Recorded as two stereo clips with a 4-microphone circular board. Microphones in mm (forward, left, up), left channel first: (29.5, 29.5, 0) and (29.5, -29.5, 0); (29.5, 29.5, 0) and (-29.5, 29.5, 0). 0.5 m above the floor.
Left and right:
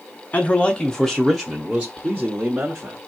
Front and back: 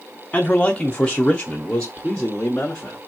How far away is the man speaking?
About 1.0 m.